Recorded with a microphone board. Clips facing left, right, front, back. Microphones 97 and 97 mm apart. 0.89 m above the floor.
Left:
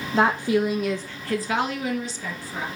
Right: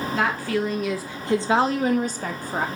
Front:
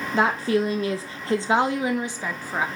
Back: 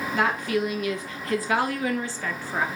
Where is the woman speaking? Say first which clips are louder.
Left 5 dB, front 4 dB; 50° left, 0.8 m; by 2.7 s 75° right, 1.2 m.